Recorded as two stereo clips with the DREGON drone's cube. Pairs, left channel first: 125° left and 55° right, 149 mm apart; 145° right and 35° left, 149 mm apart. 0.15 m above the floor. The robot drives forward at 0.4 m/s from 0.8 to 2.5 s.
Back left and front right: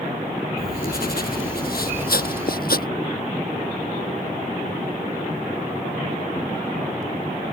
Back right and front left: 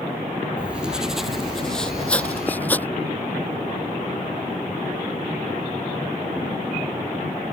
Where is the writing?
115° left; by 2.9 s 135° left.